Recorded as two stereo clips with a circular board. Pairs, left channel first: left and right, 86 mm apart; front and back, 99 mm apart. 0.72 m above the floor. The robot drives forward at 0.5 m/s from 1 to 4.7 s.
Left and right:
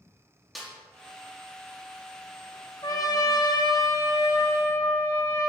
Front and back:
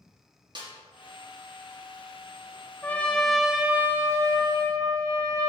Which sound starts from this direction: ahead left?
A trumpet, at 2.8 s.